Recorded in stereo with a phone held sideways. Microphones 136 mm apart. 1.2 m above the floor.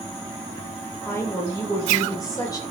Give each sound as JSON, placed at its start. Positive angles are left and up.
{"t": 1.1, "sound": "a woman speaking", "side_deg": 25, "distance_m": 4.0}